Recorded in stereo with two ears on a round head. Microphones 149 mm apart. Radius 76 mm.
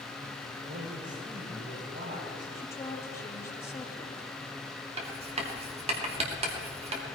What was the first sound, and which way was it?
A man speaking, 75° right (ahead or behind).